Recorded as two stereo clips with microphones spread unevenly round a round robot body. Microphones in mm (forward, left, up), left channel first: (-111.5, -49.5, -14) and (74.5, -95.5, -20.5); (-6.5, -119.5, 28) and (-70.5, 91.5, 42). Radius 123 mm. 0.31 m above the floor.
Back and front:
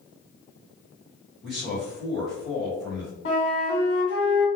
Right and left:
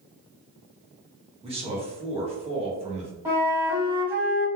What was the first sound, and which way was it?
A man speaking, 70° left.